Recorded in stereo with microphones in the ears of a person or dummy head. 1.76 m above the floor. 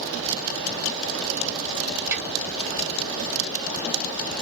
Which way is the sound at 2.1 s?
15° right (ahead or behind).